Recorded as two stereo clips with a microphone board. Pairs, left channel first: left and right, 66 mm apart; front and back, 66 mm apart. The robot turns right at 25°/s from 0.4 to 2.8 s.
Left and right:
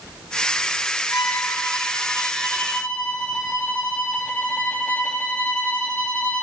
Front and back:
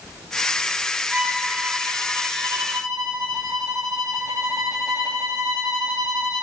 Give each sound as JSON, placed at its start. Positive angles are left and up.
{"t": 1.1, "sound": "a violin", "azimuth_deg": 115, "distance_m": 1.6}